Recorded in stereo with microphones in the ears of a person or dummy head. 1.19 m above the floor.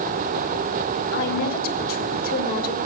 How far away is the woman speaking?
About 3.5 m.